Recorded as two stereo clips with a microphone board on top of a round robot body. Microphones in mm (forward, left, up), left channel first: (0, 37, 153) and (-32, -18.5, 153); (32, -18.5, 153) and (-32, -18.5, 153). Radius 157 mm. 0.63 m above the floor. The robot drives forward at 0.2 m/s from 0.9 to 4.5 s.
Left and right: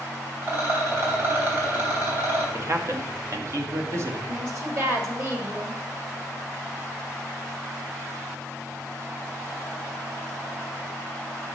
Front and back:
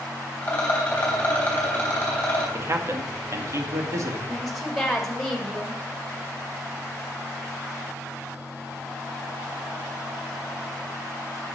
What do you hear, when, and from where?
0.4 s a rattle: 65° right, 3 m; by 2.4 s 70° right, 3 m
2.5 s a man speaking: 145° right, 1.2 m; by 4.2 s 155° right, 1.4 m
4.3 s a woman speaking: 80° right, 1.7 m; by 5.8 s 85° right, 1.7 m